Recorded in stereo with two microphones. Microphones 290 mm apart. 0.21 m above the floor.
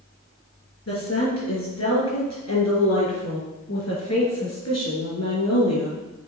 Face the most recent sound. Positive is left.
turn(degrees=60)  # may be behind; listen again after turning